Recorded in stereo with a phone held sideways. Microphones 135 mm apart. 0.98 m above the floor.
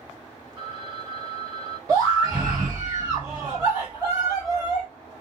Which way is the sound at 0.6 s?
35° right (ahead or behind).